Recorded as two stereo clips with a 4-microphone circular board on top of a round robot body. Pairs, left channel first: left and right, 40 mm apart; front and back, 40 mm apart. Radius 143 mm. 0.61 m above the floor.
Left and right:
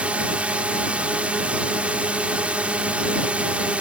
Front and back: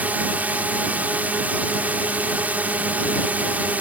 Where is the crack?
I don't hear a crack.